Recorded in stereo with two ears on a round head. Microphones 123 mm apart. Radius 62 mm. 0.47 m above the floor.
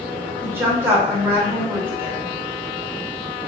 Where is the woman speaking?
20° right (ahead or behind), 1.5 m.